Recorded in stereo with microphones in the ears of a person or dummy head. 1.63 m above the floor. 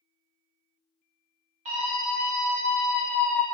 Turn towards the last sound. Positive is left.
turn(degrees=30)  # may be behind; listen again after turning